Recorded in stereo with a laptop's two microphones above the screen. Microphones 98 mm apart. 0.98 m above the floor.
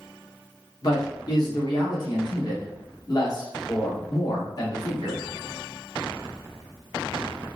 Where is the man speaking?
45° left (ahead or behind), 1.2 m.